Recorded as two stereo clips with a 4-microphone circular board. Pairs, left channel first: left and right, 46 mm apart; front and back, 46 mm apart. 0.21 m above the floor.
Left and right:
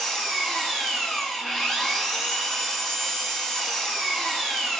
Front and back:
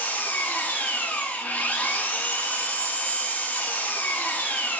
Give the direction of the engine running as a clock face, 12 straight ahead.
12 o'clock.